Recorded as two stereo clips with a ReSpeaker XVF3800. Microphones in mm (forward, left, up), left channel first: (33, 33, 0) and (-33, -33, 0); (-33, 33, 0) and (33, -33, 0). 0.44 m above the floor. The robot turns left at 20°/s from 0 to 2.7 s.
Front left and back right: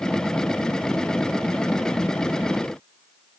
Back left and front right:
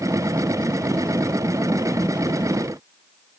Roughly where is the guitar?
No guitar in this recording.